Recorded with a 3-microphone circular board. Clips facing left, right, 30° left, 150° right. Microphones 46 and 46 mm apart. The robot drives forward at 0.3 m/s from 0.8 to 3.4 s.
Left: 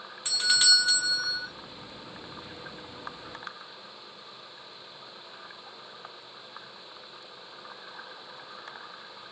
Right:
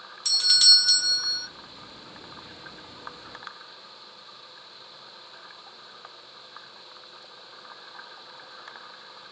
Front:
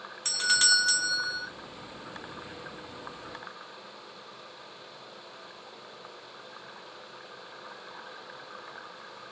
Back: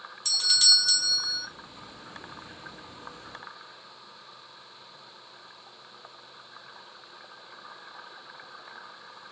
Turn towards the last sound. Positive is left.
turn(degrees=155)